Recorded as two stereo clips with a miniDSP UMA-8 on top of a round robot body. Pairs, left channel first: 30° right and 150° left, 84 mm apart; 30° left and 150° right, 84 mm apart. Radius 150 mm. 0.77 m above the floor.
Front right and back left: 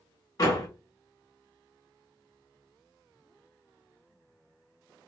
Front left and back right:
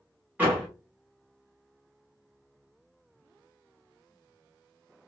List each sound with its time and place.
0.4 s a door slam: 80° right, 1.8 m